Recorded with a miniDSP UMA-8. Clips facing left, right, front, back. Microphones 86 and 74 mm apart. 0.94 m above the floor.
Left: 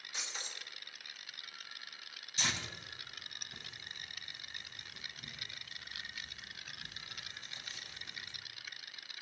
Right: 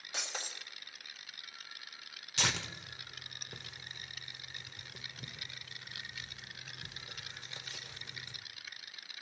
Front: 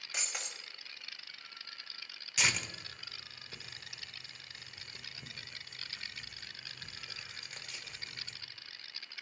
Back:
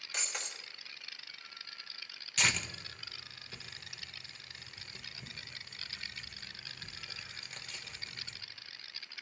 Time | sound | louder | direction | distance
0.1 | breaking glass | right 4 dB, back 1 dB | 85° right | 1.4 m
2.4 | tearing paper | right 3 dB, back 1 dB | 85° right | 1.3 m